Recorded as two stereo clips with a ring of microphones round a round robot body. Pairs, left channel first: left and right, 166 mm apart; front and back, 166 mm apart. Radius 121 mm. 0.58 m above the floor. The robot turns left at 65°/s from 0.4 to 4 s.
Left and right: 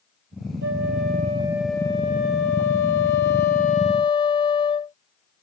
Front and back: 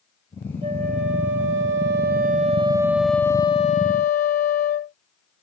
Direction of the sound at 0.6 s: 110° right.